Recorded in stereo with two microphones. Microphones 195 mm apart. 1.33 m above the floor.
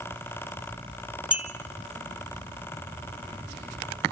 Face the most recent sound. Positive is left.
turn(degrees=-5)  # may be behind; listen again after turning